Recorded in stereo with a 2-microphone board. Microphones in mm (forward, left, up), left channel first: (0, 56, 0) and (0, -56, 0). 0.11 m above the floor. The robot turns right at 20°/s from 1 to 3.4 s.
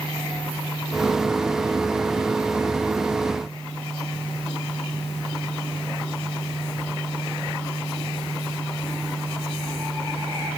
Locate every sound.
Only background noise.